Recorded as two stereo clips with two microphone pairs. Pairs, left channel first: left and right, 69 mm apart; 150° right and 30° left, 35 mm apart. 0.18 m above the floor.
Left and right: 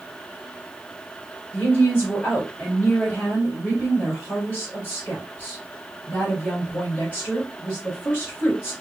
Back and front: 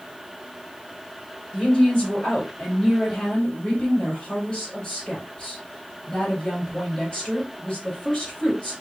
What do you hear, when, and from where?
1.5 s a woman speaking: 145° left, 2.5 m